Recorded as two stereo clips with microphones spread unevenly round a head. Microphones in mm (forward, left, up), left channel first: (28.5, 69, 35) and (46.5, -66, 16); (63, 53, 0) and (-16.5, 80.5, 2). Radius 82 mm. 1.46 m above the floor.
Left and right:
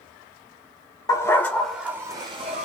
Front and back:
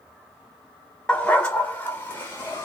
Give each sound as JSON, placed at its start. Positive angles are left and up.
{"t": 1.1, "sound": "a dog barking", "azimuth_deg": 55, "distance_m": 1.5}